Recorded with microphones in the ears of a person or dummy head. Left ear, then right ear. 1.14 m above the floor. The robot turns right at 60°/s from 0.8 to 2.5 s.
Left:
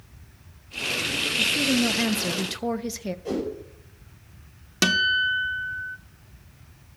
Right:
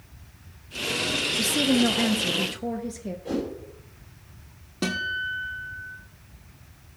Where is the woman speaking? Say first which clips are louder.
Left 1 dB; 30° right, 0.5 m; by 3.1 s 40° left, 0.5 m.